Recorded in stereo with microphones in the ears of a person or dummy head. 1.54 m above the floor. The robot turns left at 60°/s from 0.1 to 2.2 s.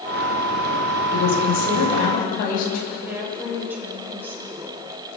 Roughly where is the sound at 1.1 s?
Behind left.